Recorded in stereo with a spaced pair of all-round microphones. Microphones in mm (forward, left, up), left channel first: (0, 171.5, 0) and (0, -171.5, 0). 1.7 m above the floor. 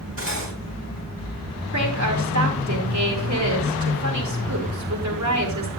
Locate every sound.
0.2 s cutlery clinking: 40° right (ahead or behind), 5 m
1.7 s a woman speaking: 50° right (ahead or behind), 4.5 m